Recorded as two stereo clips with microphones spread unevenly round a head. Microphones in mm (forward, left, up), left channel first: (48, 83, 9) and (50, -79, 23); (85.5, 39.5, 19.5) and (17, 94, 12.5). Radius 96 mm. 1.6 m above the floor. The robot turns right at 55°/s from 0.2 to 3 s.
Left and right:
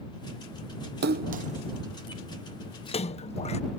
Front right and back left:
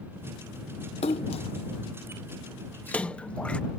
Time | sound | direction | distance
1.0 | a splash | 70° right | ?